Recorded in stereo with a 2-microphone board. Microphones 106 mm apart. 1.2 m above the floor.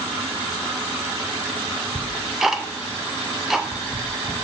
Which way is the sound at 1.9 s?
5° right (ahead or behind).